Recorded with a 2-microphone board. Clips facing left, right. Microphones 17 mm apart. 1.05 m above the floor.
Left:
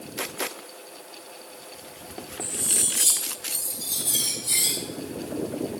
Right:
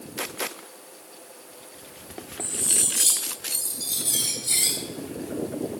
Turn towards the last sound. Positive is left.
turn(degrees=-35)  # may be behind; listen again after turning